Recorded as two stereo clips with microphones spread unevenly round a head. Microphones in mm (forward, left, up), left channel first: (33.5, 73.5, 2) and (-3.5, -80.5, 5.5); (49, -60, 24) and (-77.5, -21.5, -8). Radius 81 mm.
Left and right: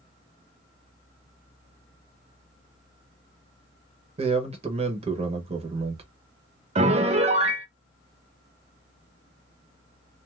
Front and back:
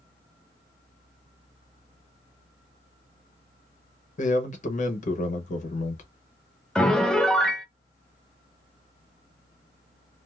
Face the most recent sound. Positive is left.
turn(degrees=-120)